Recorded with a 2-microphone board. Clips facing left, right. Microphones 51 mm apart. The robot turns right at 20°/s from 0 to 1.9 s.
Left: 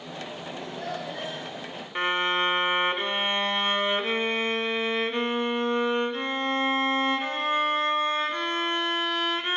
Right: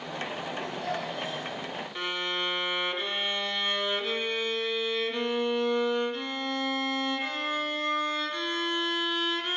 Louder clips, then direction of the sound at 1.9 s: Left 8 dB; 35° left (ahead or behind).